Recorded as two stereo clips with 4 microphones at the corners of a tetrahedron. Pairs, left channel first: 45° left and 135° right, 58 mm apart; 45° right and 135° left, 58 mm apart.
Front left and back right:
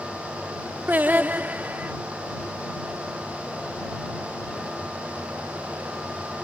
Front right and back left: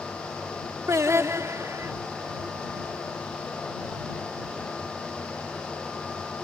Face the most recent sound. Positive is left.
turn(degrees=165)